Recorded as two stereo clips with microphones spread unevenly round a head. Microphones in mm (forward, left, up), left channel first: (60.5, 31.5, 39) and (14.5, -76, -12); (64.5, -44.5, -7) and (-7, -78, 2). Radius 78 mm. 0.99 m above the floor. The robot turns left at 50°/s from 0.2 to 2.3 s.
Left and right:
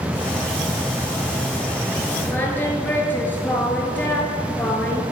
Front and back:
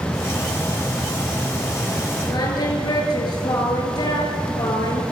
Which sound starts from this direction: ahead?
Singing, at 2.3 s.